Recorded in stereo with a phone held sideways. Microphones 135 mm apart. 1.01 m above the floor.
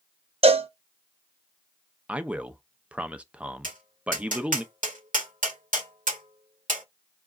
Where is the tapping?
80° right, 1.9 m.